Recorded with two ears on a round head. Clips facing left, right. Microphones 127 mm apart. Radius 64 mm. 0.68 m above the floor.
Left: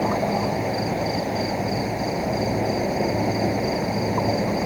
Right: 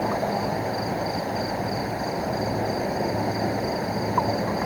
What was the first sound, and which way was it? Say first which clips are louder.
An insect: left 3 dB; 15° left (ahead or behind).